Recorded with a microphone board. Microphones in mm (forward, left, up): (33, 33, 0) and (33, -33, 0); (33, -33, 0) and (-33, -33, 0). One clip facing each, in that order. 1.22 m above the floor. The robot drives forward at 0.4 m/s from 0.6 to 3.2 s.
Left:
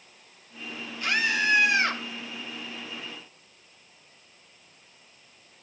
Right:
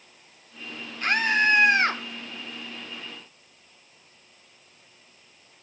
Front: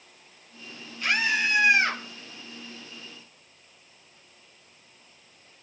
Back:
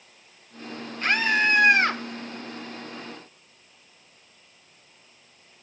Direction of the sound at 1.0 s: 135° right.